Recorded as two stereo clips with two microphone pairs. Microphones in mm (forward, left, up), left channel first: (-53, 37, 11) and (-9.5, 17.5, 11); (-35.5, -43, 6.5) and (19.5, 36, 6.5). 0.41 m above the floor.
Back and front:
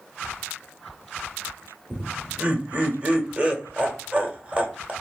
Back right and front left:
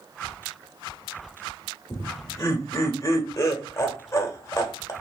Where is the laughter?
80° right, 1.2 m.